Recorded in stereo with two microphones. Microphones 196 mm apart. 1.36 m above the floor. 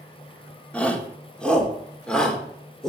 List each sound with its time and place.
0.7 s a shout: 5° left (ahead or behind), 4 m